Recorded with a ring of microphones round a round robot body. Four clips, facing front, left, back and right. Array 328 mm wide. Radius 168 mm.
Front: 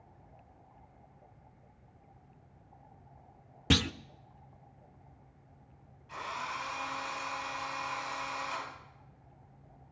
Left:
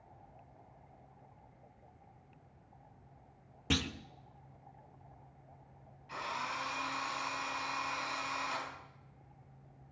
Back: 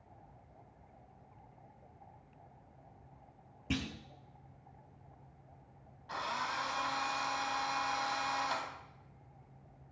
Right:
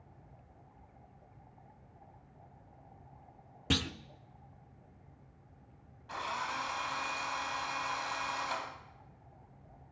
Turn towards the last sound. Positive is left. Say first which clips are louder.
# right 2 dB, back 1 dB
turn(degrees=-140)